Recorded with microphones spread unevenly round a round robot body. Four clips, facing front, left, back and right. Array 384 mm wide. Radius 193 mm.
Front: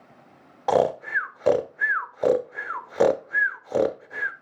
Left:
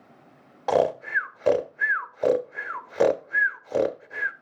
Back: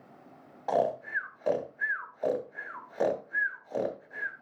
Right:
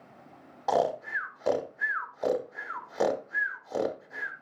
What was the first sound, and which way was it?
Snoring, 20° left.